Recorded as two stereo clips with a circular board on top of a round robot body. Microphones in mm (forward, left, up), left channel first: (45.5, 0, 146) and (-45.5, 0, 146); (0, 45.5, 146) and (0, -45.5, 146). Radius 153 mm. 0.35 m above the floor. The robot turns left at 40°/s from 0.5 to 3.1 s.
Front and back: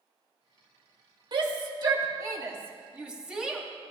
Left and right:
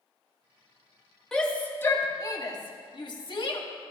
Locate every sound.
1.3 s a shout: 175° left, 1.9 m; by 3.6 s 100° left, 1.9 m